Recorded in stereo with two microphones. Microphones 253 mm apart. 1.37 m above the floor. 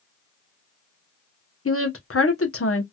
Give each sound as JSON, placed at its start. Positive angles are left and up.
{"t": 1.6, "sound": "a woman speaking", "side_deg": 60, "distance_m": 1.0}